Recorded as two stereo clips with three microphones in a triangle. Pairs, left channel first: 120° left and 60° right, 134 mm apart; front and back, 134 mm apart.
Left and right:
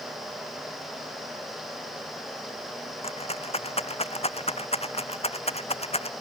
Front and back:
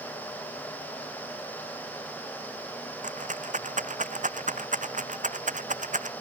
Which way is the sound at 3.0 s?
160° left.